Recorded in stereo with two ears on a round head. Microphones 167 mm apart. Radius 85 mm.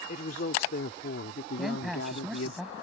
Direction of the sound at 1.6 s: Centre (ahead or behind).